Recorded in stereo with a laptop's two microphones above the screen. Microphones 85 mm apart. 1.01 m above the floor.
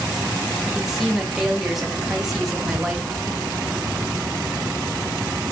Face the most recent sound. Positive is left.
turn(degrees=45)  # may be behind; listen again after turning